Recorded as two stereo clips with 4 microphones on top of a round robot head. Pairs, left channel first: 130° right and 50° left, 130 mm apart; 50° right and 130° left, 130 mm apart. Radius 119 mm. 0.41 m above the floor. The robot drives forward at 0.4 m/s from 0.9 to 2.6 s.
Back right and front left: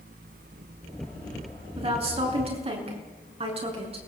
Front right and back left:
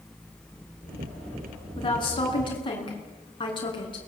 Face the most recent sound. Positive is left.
turn(degrees=5)